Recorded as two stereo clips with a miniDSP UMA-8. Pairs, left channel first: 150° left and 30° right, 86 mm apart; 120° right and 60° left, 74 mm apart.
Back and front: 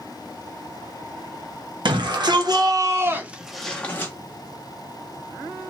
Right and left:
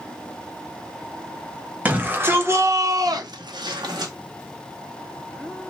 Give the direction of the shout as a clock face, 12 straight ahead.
12 o'clock.